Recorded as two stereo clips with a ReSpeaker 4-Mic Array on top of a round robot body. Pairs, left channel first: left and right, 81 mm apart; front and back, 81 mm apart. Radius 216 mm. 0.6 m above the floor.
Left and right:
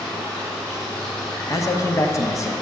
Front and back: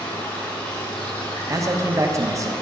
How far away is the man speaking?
About 1.0 m.